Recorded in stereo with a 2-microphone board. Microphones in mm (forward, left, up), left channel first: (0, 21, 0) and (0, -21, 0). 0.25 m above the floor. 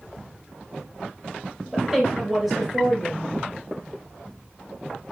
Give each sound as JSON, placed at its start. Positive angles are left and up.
{"t": 1.7, "sound": "a woman speaking", "side_deg": -5, "distance_m": 5.5}